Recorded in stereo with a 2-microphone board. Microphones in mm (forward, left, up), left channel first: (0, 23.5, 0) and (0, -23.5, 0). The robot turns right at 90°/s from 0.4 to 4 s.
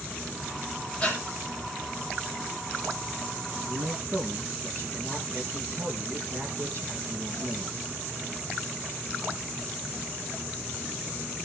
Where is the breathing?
20° left (ahead or behind), 7 m; by 1.2 s 40° left (ahead or behind), 7 m.